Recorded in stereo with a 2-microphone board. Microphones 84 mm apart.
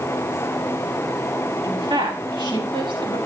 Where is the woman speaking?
60° right (ahead or behind), 6 m; by 3.2 s 75° right (ahead or behind), 6.5 m.